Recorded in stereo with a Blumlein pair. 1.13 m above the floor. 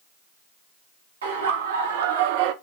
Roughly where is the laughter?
Right.